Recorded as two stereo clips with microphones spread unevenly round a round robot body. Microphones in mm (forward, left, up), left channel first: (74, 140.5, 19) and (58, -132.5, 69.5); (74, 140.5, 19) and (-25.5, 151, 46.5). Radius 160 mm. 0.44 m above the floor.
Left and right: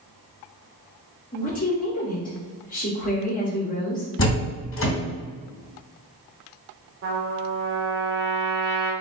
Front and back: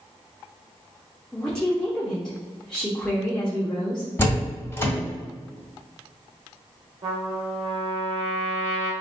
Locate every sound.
1.3 s a woman speaking: 60° left, 1.0 m
4.2 s a door slam: 55° left, 1.8 m
7.0 s a trumpet: 145° right, 0.9 m